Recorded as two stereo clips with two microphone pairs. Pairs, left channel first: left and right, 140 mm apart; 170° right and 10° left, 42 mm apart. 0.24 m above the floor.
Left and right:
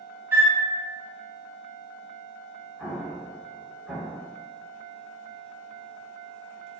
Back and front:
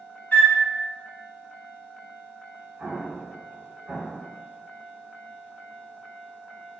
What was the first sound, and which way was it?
A flute, 155° right.